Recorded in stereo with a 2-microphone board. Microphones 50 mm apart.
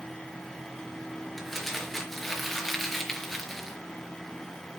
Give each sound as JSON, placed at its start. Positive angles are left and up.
{"t": 1.4, "sound": "crumpling", "side_deg": 5, "distance_m": 4.0}